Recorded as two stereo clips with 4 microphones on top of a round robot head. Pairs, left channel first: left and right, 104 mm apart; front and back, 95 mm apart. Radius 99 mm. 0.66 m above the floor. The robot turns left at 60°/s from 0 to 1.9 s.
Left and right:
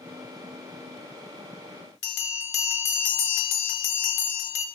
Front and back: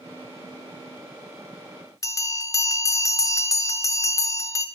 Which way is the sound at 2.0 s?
60° left.